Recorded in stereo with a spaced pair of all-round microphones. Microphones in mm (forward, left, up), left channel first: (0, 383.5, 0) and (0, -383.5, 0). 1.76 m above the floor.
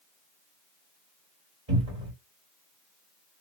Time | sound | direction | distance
1.7 | a cupboard door | 35° right (ahead or behind) | 2 m